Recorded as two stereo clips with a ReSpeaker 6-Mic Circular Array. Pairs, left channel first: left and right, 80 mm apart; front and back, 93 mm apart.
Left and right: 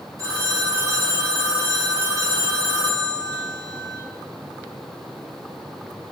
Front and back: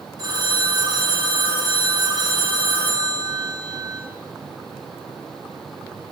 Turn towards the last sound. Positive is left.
turn(degrees=-135)